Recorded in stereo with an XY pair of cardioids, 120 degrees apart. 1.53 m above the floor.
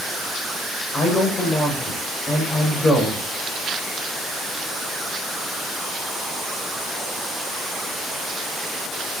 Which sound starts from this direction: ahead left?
A man speaking, at 0.9 s.